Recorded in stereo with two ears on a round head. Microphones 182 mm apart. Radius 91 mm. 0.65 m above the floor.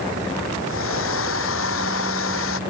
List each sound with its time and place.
0.6 s a hair dryer: 80° left